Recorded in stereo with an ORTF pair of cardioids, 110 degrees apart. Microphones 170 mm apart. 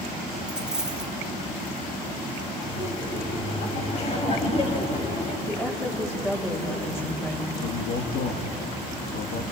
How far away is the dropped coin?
About 1.8 m.